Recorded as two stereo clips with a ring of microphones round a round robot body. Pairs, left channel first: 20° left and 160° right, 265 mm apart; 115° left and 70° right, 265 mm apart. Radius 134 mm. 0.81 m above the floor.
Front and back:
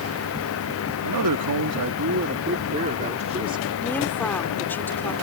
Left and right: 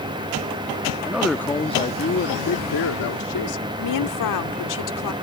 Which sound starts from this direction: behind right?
A man speaking, at 1.0 s.